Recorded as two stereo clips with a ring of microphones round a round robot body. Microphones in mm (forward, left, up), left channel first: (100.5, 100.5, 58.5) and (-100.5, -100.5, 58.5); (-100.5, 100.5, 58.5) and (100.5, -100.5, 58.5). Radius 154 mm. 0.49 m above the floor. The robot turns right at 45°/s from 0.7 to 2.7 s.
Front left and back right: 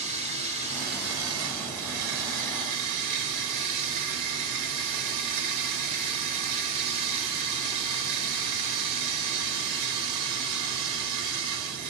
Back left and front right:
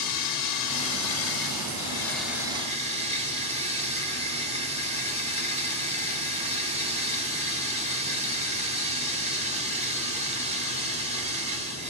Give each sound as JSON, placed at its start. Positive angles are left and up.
{"t": 0.0, "sound": "running water", "azimuth_deg": 155, "distance_m": 1.0}